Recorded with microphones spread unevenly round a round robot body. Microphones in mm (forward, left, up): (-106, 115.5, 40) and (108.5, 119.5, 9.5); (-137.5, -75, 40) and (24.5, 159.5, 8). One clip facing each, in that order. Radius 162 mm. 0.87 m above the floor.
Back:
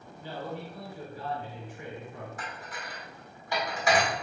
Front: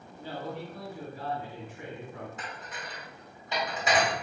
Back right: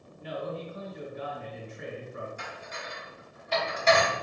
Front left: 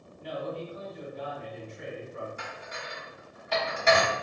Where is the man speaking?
60° right, 1.9 m.